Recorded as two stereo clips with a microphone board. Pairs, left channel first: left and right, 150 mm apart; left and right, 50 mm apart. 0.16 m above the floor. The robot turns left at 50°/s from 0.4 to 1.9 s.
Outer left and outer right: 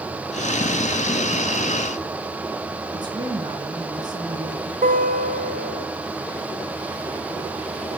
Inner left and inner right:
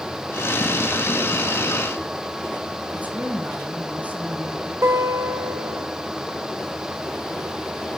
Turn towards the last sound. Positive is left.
turn(degrees=-65)  # may be behind; listen again after turning